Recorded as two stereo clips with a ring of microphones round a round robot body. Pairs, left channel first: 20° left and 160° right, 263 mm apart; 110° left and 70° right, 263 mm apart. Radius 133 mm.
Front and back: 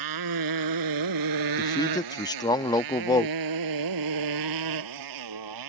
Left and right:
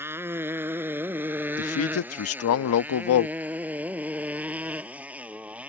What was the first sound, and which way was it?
A motorcycle, 150° right.